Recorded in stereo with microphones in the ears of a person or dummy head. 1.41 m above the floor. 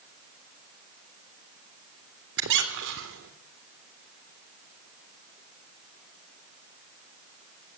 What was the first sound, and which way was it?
A squeak, 65° right (ahead or behind).